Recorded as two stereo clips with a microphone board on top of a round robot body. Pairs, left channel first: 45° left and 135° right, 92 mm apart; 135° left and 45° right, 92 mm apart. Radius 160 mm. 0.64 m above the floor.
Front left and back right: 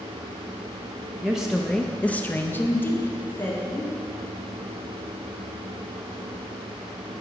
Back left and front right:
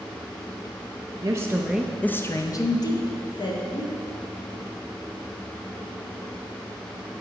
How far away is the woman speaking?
About 0.8 m.